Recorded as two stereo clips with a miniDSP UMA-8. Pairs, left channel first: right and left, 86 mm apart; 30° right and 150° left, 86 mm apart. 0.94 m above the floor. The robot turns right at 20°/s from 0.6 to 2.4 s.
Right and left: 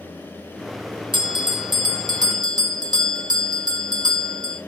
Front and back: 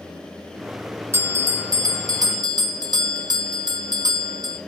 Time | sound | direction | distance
1.1 | a bell | 95° left | 1.3 m